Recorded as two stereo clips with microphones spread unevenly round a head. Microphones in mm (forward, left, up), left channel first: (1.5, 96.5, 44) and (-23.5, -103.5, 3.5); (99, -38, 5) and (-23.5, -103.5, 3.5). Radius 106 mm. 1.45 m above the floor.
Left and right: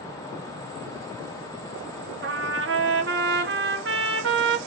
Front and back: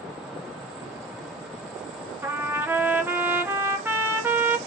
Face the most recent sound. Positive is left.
turn(degrees=-85)